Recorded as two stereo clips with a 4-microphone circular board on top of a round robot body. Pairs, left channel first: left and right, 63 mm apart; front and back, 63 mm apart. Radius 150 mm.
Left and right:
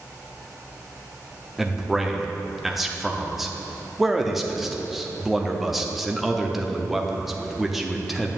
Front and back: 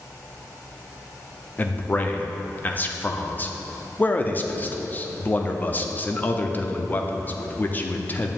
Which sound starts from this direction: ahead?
A man speaking, at 1.6 s.